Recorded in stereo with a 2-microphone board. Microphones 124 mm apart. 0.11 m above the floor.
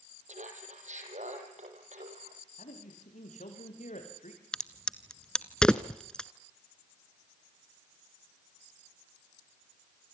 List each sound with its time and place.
0.3 s laughter: 70° right (ahead or behind), 5 m; by 2.4 s 75° right (ahead or behind), 6.5 m
2.6 s a man speaking: 80° left, 7.5 m
4.5 s a crack: 5° left (ahead or behind), 0.9 m